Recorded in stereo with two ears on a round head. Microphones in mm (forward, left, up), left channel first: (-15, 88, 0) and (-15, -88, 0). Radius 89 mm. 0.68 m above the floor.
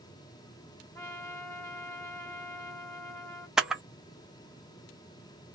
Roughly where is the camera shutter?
Centre.